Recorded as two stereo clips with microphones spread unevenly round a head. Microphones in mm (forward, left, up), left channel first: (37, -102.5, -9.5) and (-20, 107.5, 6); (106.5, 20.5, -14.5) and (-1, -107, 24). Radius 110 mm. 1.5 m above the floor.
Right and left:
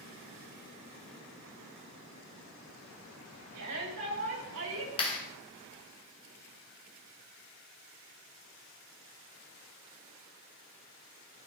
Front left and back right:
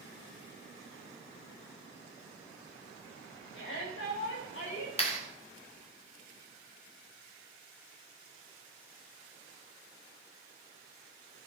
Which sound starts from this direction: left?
A shout, at 3.5 s.